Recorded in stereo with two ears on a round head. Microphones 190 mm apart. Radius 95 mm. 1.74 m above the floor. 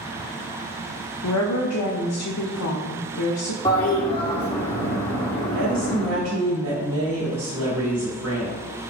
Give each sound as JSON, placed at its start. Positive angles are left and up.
{"t": 1.2, "sound": "a woman speaking", "side_deg": 80, "distance_m": 0.6}
{"t": 3.6, "sound": "a toilet flushing", "side_deg": 25, "distance_m": 1.3}
{"t": 5.5, "sound": "a woman speaking", "side_deg": -75, "distance_m": 1.2}